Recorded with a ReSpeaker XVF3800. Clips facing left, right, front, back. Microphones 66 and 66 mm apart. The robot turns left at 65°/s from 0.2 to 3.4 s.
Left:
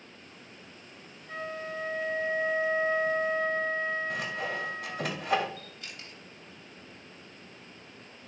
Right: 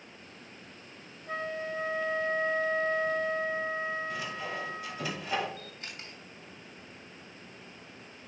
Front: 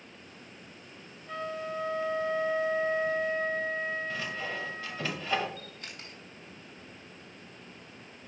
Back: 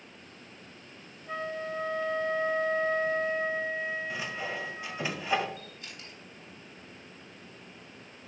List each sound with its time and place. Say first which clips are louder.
1.3 s a flute: right 2 dB, back 1 dB; 115° right, 0.9 m; by 5.1 s 105° left, 0.9 m
4.1 s sawing: left 3 dB, even; 110° left, 1.1 m
5.6 s a camera shutter: right 1 dB, front 1 dB; 30° right, 3 m